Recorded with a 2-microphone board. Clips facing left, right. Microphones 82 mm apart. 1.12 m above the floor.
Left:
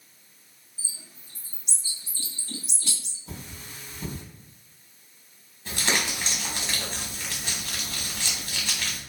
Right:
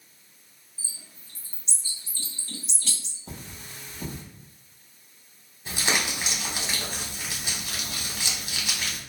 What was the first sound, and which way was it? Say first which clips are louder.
A bird: left 1 dB; 15° left (ahead or behind).